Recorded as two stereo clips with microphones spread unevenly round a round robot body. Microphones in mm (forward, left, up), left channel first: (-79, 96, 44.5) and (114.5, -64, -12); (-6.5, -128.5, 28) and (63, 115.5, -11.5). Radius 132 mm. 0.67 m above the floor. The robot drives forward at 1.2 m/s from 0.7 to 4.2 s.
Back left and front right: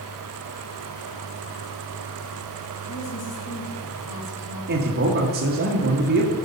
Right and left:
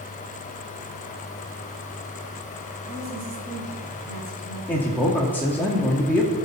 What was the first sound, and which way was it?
A woman speaking, 110° left.